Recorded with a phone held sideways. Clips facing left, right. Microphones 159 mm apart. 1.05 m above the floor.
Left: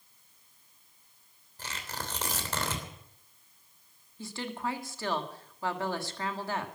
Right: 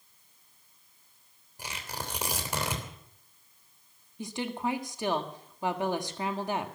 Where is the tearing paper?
15° right (ahead or behind), 3 m.